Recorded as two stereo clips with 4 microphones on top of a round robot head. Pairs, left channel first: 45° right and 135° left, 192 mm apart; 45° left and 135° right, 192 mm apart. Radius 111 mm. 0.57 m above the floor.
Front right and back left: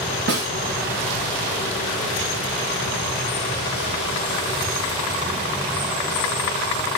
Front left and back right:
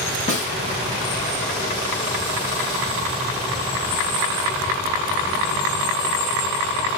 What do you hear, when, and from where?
0.3 s a snare drum: 100° left, 3.5 m